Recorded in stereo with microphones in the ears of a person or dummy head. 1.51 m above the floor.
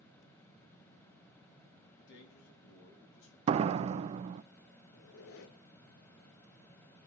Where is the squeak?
70° left (ahead or behind), 1.3 m.